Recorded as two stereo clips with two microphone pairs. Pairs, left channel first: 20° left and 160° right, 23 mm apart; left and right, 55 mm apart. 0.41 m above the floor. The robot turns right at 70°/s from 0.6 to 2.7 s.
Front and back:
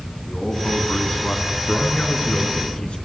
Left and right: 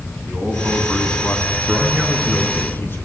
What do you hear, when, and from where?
0.2 s a man speaking: 30° right, 4 m; by 1.6 s 40° left, 4 m
1.7 s a man speaking: 30° right, 5 m; by 3.0 s 40° left, 5 m